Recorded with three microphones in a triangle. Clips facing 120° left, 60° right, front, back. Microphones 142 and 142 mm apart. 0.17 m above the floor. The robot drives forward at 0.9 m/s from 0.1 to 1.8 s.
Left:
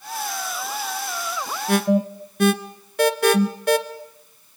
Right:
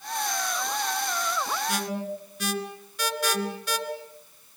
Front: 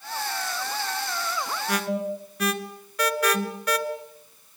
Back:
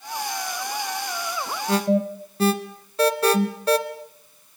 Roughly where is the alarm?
Behind left.